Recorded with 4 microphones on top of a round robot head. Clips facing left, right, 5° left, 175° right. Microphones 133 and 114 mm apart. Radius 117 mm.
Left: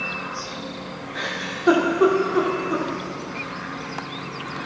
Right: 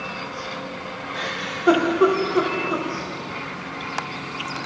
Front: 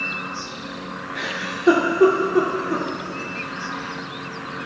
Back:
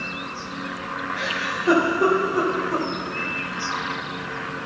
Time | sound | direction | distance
1.1 | a giggle | straight ahead | 0.9 m